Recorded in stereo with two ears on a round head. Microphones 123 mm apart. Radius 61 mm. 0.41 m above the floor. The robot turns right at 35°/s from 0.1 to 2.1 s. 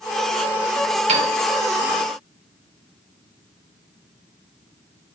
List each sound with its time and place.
1.1 s a piano: 50° right (ahead or behind), 0.5 m; by 1.4 s 45° right (ahead or behind), 0.5 m